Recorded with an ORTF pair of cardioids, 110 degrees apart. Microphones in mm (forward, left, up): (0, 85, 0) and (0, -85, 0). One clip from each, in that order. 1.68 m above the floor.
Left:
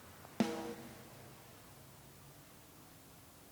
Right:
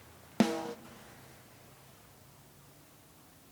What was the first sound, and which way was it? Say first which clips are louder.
A snare drum: right 7 dB; 35° right.